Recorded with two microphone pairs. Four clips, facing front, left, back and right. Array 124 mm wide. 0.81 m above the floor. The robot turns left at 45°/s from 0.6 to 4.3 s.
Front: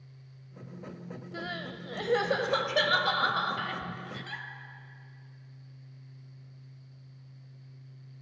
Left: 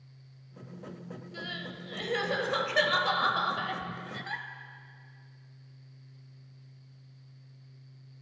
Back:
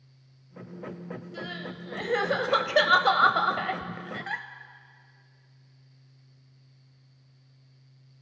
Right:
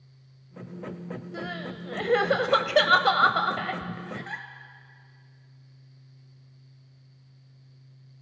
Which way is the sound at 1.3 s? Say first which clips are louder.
Right 5 dB, front 3 dB; 50° right.